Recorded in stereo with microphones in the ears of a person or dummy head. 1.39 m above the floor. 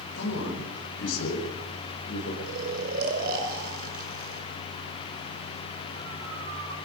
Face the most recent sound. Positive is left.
turn(degrees=-50)  # may be behind; listen again after turning